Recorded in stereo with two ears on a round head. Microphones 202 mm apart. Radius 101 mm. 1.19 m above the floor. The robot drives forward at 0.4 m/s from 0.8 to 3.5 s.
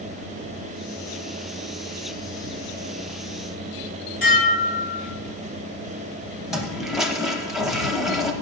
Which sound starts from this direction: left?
Dishes clattering, at 4.2 s.